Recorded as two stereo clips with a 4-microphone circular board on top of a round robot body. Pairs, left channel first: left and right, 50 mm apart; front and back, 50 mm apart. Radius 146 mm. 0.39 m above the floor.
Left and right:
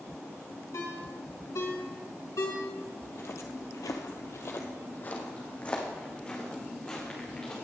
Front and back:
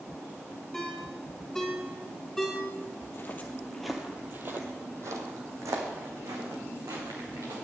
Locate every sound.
0.7 s a ringtone: 85° left, 5 m
3.0 s footsteps: 45° left, 1.2 m; by 7.5 s 165° left, 4 m